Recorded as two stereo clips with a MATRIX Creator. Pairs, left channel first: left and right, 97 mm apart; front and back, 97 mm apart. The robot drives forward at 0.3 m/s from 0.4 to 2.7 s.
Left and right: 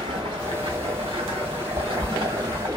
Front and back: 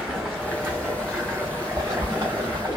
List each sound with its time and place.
0.0 s running water: 105° right, 1.1 m; by 2.8 s 135° right, 1.5 m